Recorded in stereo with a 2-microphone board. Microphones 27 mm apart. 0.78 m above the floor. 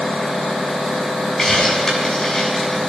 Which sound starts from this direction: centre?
A hiss, at 1.4 s.